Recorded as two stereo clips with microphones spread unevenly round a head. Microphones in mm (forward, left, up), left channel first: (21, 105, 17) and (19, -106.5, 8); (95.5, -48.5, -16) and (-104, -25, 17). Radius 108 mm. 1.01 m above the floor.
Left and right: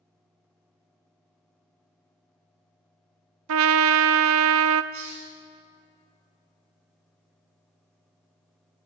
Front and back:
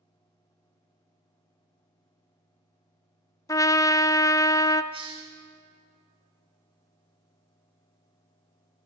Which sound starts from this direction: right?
A trumpet, at 3.5 s.